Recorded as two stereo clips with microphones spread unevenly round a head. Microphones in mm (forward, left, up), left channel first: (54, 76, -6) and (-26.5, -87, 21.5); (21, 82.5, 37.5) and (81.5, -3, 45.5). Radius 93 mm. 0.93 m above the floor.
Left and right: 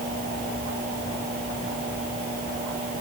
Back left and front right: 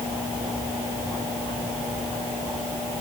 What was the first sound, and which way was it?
Only background noise.